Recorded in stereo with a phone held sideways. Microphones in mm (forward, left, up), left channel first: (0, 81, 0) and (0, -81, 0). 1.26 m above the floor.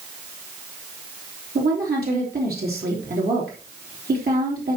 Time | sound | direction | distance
1.6 | a woman speaking | 70° right (ahead or behind) | 3 m